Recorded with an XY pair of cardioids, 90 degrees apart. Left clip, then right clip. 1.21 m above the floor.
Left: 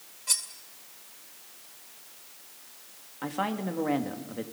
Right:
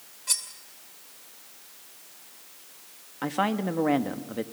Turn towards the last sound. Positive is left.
turn(degrees=-35)